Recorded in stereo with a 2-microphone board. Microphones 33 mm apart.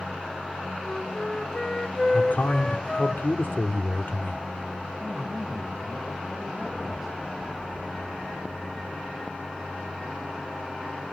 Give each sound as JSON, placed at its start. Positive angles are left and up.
{"t": 0.8, "sound": "a flute", "side_deg": 25, "distance_m": 0.9}
{"t": 2.1, "sound": "a man speaking", "side_deg": 70, "distance_m": 1.6}
{"t": 5.0, "sound": "a man speaking", "side_deg": -10, "distance_m": 3.5}